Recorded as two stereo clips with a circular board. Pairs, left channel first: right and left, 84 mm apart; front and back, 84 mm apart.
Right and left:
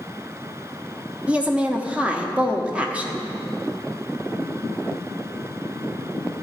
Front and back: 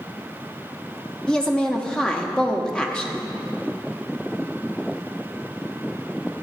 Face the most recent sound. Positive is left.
turn(degrees=55)